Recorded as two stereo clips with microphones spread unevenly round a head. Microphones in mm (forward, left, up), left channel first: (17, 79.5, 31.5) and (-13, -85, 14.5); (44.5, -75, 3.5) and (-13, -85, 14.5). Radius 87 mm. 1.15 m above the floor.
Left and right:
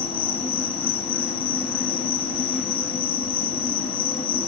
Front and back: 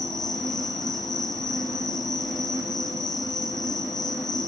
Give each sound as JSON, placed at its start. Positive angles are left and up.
{"t": 0.0, "sound": "an insect", "azimuth_deg": 20, "distance_m": 4.0}